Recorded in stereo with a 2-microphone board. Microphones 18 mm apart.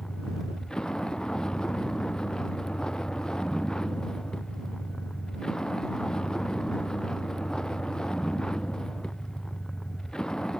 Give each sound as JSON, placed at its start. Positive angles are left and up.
{"t": 0.0, "sound": "a vehicle", "side_deg": 45}